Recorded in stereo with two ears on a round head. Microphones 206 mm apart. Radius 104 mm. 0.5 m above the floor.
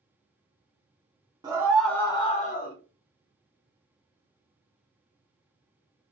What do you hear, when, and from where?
1.4 s a scream: 20° right (ahead or behind), 0.9 m; by 2.8 s 45° left (ahead or behind), 1.1 m